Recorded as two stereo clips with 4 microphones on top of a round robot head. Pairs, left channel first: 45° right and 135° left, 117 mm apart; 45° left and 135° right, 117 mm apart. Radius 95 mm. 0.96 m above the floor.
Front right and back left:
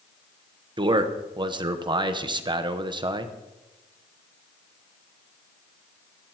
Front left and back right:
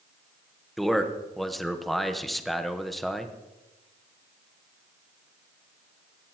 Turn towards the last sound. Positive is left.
turn(degrees=135)